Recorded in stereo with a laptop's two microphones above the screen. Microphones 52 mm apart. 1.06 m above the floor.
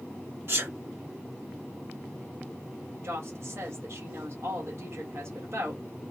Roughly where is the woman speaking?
Right.